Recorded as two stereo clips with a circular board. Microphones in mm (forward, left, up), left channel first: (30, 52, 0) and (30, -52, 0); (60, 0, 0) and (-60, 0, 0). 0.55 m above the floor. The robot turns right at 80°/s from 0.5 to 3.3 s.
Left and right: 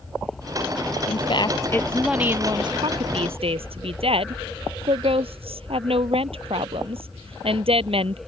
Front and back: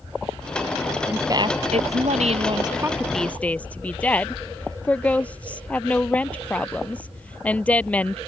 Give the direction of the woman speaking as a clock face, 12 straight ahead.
9 o'clock.